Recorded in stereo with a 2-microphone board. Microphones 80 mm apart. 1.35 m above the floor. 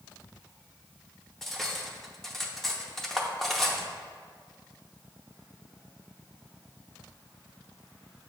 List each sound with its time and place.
1.4 s cutlery clinking: 5° left (ahead or behind), 0.7 m